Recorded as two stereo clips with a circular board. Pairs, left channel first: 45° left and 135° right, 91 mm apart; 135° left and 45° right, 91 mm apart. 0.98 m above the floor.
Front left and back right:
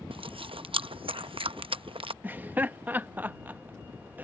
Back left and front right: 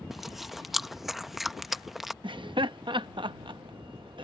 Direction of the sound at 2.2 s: 65° right.